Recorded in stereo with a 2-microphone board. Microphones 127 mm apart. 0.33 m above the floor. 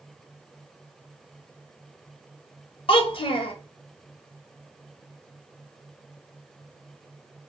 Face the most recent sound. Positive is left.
turn(degrees=45)  # may be behind; listen again after turning